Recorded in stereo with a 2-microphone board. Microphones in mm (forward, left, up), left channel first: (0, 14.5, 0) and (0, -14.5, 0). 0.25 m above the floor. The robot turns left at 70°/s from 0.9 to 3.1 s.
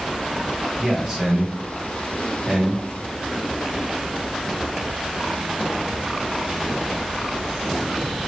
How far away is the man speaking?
About 1.2 m.